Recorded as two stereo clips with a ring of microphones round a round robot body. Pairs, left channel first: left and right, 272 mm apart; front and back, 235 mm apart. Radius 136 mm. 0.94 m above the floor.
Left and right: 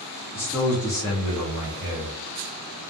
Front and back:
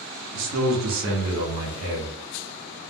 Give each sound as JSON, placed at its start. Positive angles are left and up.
{"t": 0.3, "sound": "a man speaking", "azimuth_deg": 170, "distance_m": 0.8}